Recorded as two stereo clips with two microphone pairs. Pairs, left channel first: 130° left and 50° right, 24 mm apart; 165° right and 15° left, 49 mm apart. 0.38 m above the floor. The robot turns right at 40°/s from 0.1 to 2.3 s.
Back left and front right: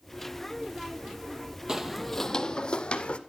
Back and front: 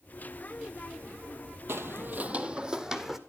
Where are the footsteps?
10° left, 0.6 m; by 3.2 s 95° left, 1.0 m.